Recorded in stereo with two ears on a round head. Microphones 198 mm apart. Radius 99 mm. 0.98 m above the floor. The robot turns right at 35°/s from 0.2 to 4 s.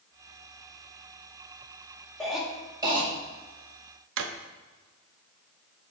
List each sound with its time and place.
2.2 s a cough: 5° left (ahead or behind), 1.7 m; by 3.1 s 25° right (ahead or behind), 1.7 m
4.2 s a drawer: 60° right (ahead or behind), 0.6 m